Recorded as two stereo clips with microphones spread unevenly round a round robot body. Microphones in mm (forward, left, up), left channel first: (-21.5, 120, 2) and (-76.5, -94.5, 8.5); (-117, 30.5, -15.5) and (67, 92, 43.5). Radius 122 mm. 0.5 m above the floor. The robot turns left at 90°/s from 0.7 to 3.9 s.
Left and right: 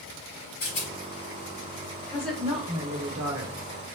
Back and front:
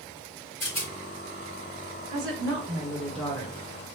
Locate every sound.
0.6 s a rattle: 110° left, 3 m; by 0.9 s 90° left, 3 m
2.1 s a woman speaking: 5° left, 1.5 m; by 4.0 s 155° right, 1.5 m